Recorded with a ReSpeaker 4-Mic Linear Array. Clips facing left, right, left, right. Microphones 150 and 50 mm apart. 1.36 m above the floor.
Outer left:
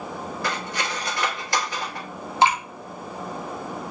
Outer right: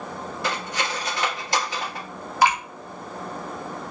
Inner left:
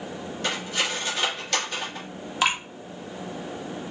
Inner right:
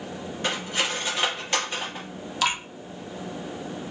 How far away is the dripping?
About 0.7 m.